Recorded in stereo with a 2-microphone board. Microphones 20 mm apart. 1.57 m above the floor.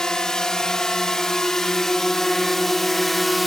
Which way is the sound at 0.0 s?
40° left (ahead or behind).